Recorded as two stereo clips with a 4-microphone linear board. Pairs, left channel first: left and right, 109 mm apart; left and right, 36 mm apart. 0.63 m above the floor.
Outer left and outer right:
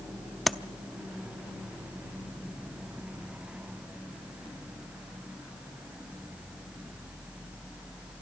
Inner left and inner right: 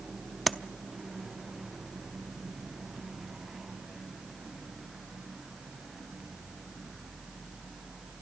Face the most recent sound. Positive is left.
turn(degrees=0)  # may be behind; listen again after turning